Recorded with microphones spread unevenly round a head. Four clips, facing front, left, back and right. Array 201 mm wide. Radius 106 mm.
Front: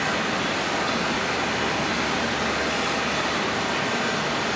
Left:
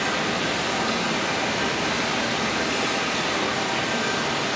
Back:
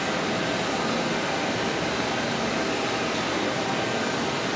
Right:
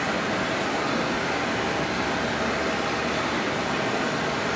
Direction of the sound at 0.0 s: 125° right.